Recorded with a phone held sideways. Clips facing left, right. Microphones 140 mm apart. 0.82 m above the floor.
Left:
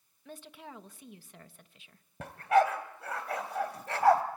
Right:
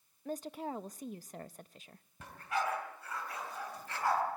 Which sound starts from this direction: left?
A dog barking, at 2.2 s.